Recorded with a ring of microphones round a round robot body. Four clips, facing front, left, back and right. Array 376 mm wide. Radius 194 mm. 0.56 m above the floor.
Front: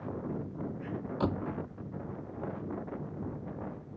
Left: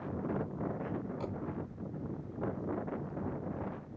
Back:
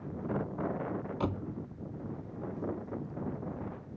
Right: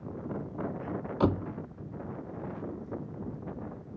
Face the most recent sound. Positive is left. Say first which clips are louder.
# right 11 dB, front 5 dB
turn(degrees=-80)